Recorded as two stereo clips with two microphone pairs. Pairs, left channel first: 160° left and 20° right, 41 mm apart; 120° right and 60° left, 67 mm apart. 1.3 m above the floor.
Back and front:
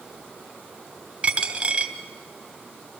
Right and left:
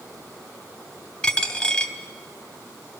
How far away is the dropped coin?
About 1.2 m.